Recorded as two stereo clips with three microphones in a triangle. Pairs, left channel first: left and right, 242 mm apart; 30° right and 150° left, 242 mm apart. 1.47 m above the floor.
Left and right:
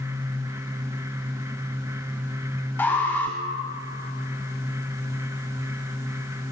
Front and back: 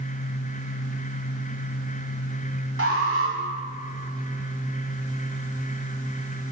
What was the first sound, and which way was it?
An alarm, 170° left.